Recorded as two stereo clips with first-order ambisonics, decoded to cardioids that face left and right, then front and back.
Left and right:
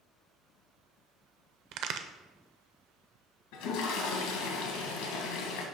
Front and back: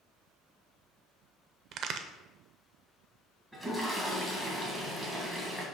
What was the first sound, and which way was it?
A crack, 130° right.